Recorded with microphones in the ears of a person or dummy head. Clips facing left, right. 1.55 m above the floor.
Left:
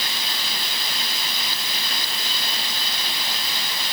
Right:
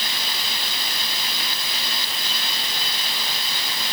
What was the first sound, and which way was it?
Only background noise.